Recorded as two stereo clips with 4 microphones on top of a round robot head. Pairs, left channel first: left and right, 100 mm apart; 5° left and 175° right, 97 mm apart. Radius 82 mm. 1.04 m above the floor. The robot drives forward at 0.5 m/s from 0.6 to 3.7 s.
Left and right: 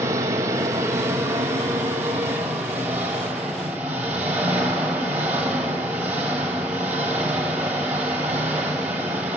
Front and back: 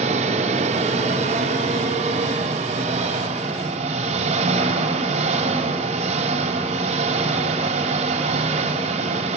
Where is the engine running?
160° right, 2 m; by 9.4 s 170° right, 3.5 m.